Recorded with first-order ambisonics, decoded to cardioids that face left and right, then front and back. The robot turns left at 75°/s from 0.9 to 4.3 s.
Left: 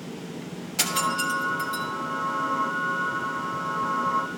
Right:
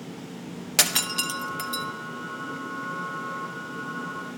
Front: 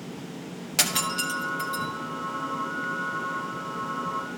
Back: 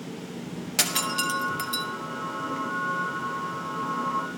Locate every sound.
0.8 s breaking glass: 85° right, 1.2 m; by 1.9 s 160° right, 1.2 m